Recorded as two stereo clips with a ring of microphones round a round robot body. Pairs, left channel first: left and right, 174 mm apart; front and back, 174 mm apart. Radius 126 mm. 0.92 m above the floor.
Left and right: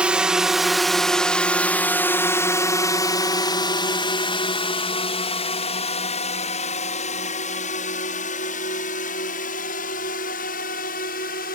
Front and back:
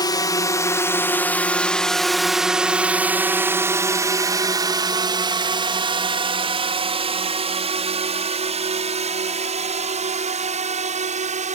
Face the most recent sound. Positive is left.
turn(degrees=135)